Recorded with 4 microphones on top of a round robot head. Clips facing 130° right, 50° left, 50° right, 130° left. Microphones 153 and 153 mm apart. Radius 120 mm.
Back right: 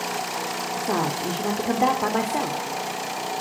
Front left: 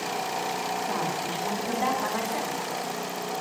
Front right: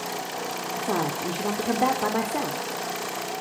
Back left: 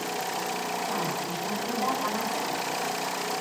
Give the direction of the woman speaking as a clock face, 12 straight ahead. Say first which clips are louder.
Back right 4 dB, front right 4 dB; 3 o'clock.